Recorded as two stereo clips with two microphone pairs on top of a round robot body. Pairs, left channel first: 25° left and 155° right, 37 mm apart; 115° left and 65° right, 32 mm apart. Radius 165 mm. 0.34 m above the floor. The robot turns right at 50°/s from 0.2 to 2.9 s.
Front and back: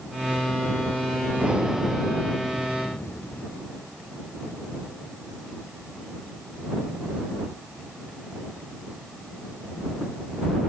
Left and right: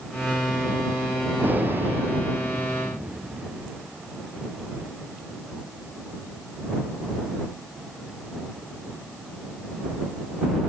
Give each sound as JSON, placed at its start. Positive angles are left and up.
{"t": 1.4, "sound": "breathing", "azimuth_deg": -95}